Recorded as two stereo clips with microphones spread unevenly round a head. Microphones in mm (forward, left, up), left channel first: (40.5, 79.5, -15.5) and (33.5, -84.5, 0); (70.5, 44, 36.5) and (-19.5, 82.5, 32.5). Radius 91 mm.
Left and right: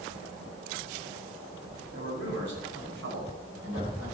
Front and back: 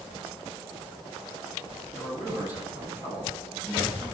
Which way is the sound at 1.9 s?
85° right.